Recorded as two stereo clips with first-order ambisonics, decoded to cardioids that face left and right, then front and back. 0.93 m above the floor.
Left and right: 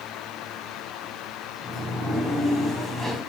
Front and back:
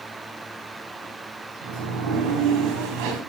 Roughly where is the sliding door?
Behind.